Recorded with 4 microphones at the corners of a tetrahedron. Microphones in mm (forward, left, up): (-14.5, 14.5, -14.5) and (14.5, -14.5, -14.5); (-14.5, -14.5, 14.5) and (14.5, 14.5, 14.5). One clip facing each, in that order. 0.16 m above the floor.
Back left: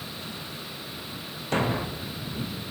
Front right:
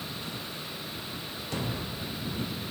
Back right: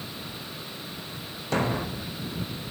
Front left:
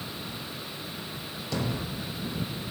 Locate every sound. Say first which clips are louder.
1.5 s a thud: back left 9 dB, back right 5 dB; straight behind